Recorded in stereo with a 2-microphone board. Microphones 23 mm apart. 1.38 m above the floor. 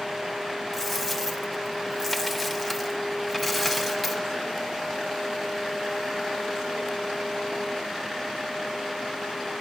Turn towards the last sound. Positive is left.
turn(degrees=0)  # may be behind; listen again after turning